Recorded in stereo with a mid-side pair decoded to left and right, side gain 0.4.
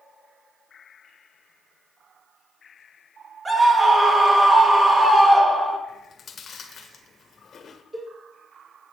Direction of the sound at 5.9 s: 55° left.